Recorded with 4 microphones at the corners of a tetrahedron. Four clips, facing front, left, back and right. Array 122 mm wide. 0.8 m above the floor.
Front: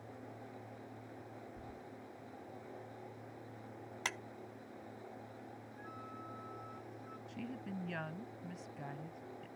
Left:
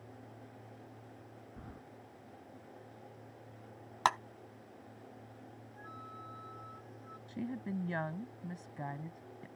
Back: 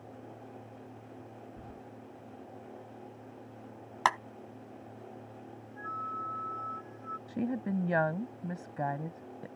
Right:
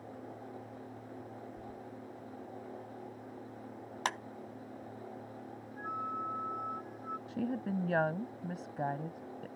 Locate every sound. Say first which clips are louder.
1.6 s keys jangling: right 5 dB, back 3 dB; 120° left
4.0 s a clap: left 6 dB, back 16 dB; 155° left
5.8 s a flute: right 12 dB, back 15 dB; 140° right
7.3 s a woman speaking: right 3 dB, back 12 dB; 150° right